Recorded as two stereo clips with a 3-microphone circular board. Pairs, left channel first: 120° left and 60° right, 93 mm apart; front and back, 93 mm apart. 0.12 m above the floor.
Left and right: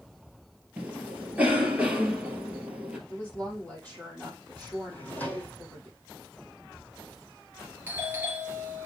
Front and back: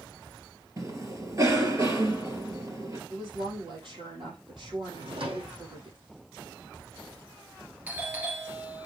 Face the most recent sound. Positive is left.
turn(degrees=-115)